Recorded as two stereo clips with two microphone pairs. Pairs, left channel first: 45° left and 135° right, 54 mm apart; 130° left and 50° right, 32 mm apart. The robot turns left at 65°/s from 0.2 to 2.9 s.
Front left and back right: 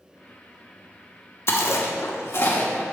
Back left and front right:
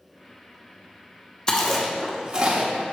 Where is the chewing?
70° left, 1.1 m; by 2.8 s 20° right, 1.1 m.